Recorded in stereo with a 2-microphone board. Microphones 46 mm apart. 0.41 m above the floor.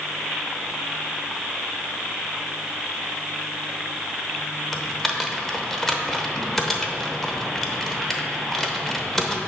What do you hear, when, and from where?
4.7 s typing on a keyboard: 10° left (ahead or behind), 0.9 m